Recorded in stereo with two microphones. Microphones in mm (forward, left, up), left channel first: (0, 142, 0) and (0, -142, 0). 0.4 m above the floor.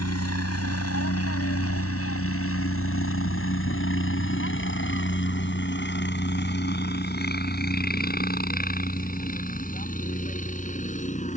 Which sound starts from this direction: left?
A helicopter, at 0.0 s.